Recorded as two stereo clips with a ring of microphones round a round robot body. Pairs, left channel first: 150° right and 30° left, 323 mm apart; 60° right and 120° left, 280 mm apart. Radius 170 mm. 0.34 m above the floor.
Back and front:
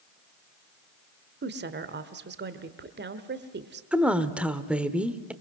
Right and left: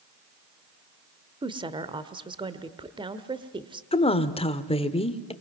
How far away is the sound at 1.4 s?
About 1.4 m.